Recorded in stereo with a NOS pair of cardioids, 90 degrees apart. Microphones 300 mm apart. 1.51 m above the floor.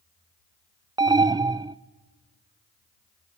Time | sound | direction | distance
1.0 | an alarm | 15° right | 0.5 m